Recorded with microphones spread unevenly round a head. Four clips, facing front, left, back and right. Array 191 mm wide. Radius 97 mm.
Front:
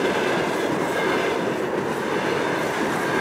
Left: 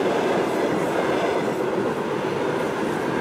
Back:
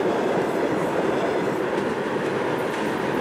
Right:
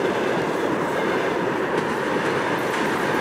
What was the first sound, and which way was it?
Only background noise.